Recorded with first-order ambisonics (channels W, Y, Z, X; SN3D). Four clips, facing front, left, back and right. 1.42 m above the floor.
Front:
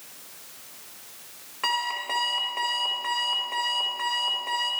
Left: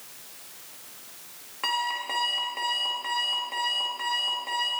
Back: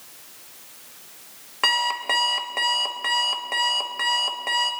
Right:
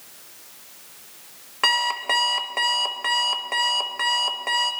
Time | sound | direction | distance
1.6 | an alarm clock | 130° right | 1.0 m